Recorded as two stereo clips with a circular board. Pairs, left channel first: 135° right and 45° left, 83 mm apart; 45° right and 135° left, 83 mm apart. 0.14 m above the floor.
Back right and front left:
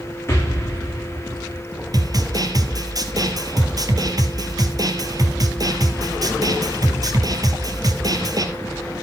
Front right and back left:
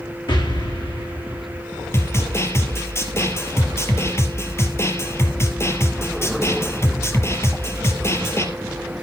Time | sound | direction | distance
0.3 | an explosion | 75° right | 5 m
1.9 | a snare drum | 10° left | 2 m